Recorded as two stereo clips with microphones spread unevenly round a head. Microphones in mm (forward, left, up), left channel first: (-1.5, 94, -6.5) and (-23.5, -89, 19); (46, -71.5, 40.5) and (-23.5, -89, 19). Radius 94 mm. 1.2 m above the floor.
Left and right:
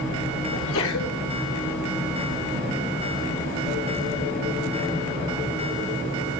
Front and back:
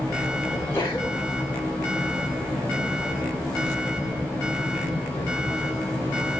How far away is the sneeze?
About 4.5 m.